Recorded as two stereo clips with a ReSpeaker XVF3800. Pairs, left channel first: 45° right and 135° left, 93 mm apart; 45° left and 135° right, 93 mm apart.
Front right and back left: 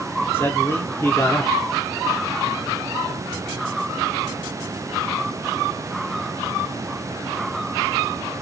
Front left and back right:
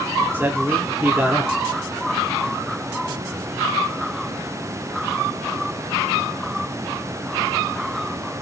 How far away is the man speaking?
About 0.9 m.